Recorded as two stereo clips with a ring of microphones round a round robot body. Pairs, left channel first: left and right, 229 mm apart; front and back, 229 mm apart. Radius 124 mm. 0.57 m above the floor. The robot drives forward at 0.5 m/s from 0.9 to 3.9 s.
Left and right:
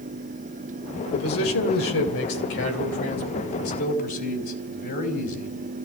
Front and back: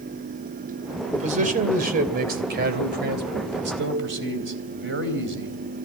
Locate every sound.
1.1 s a man speaking: 120° left, 2.5 m; by 5.6 s 140° left, 3.5 m